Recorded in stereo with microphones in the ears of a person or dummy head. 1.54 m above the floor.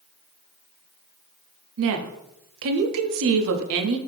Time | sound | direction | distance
1.8 | a woman speaking | 70° right (ahead or behind) | 0.5 m